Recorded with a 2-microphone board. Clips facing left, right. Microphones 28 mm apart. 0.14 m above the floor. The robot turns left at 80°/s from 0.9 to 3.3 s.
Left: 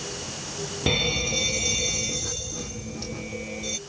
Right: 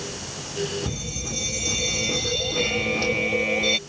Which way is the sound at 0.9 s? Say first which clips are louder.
Left 8 dB; 70° left.